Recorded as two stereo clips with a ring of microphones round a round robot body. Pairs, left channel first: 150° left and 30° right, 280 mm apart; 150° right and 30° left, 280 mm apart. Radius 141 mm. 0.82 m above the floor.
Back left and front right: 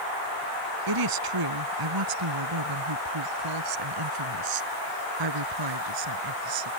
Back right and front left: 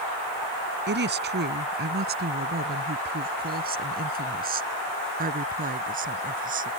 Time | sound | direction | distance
0.9 | a woman speaking | 25° right | ?